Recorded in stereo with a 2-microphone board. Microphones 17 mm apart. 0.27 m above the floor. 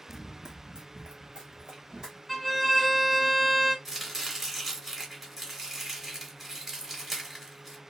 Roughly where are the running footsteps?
Centre.